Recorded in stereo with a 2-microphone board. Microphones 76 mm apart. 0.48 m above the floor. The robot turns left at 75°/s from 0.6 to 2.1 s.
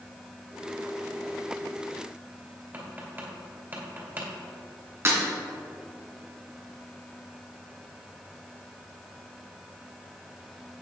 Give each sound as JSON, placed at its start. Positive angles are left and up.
{"t": 2.7, "sound": "tapping", "side_deg": -30, "distance_m": 2.5}
{"t": 5.0, "sound": "breaking glass", "side_deg": -35, "distance_m": 3.0}